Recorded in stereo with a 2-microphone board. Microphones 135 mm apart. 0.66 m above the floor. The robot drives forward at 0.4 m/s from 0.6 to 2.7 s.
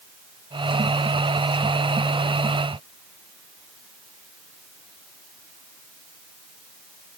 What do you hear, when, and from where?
Only background noise.